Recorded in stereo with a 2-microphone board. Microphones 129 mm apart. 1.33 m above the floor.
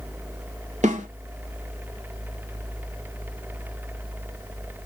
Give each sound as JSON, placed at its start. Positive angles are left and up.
{"t": 0.8, "sound": "a snare drum", "side_deg": -65, "distance_m": 1.2}